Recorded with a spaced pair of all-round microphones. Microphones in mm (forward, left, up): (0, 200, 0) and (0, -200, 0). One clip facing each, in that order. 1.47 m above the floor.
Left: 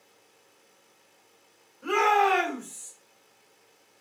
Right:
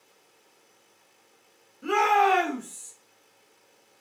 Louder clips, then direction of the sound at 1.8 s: Even; 40° right (ahead or behind).